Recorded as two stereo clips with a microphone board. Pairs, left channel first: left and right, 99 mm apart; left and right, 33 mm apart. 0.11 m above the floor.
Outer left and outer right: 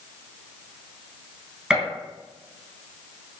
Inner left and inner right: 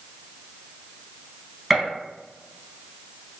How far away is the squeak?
No squeak in this recording.